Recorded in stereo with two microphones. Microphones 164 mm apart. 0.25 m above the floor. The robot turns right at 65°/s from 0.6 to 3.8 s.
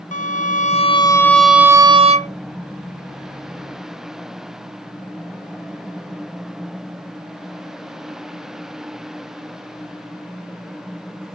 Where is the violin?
125° left, 0.6 m; by 2.3 s 120° right, 0.6 m.